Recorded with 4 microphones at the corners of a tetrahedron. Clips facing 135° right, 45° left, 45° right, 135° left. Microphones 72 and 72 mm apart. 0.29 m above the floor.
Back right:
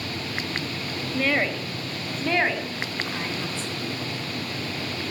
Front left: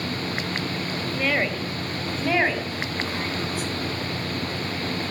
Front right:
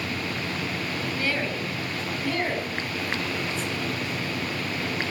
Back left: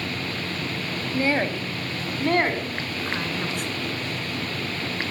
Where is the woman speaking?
140° left, 1.1 m; by 3.7 s 125° left, 2.5 m.